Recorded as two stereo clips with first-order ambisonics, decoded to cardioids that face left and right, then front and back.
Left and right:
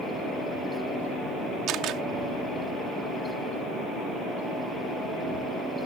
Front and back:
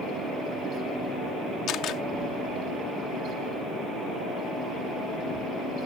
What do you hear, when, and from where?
1.7 s a camera shutter: 45° right